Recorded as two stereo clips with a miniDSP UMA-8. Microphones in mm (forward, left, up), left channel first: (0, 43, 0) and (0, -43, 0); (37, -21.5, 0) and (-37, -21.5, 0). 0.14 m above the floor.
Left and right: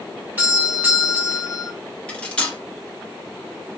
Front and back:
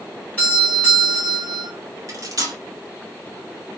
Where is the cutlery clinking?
160° left, 0.9 m.